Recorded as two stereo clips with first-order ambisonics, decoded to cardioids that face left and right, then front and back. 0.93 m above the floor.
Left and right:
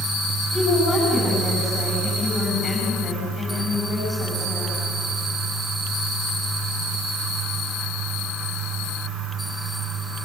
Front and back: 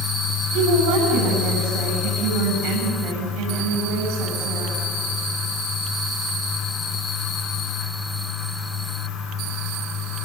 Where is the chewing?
I don't hear chewing.